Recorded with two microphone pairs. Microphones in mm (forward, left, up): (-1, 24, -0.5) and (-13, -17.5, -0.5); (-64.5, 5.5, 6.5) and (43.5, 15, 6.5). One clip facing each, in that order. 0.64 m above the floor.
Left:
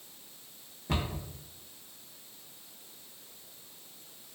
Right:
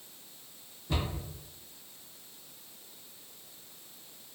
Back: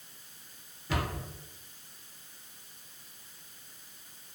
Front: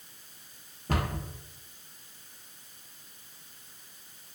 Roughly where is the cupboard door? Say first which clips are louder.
Left 1 dB, front 2 dB; ahead left.